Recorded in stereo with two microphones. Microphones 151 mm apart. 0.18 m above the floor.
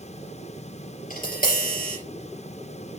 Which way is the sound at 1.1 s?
65° left (ahead or behind).